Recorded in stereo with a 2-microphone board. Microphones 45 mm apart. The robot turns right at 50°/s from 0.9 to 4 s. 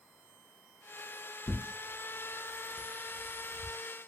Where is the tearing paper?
25° left (ahead or behind), 0.6 m; by 3.7 s 25° right (ahead or behind), 0.6 m.